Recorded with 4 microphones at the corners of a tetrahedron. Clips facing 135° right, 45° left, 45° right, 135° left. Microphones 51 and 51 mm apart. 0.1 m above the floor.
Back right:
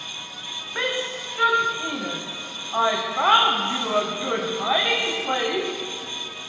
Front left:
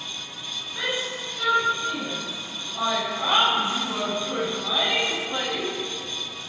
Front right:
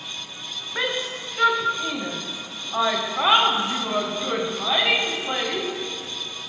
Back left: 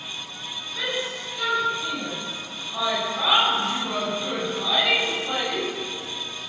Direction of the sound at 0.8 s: 90° right.